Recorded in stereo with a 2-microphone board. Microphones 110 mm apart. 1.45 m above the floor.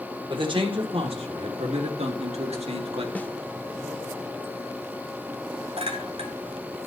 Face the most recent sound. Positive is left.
turn(degrees=-65)  # may be behind; listen again after turning